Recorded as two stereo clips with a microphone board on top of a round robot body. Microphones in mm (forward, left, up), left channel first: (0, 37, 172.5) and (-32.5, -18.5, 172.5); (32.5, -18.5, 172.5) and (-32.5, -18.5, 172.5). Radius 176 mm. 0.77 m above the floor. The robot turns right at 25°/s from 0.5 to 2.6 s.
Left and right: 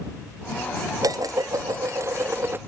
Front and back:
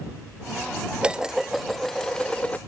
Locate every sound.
1.0 s dishes clattering: 110° right; by 2.6 s 70° right